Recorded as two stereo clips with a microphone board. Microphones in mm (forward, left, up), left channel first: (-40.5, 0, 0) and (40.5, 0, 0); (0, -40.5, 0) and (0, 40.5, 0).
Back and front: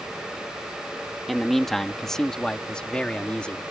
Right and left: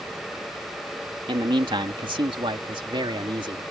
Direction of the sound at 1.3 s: 90° left.